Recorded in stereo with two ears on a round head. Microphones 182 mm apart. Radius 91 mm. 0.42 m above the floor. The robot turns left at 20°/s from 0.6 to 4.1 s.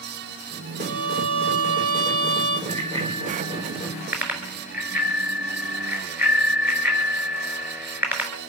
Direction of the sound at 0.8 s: 55° right.